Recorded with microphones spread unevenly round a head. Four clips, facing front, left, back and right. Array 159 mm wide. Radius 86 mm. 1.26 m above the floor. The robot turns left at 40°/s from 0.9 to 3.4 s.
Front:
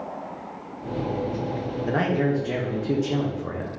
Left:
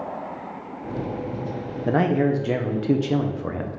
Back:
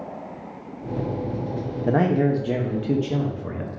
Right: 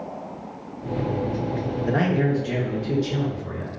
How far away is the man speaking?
About 0.6 m.